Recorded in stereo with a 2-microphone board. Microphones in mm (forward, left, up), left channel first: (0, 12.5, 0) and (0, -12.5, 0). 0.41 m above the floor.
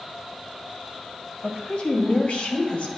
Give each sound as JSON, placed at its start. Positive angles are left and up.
{"t": 1.4, "sound": "a woman speaking", "side_deg": 50, "distance_m": 3.0}